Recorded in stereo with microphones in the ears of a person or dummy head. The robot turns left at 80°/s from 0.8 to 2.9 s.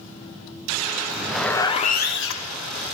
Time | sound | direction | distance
1.1 | a zipper | 155° right | 0.8 m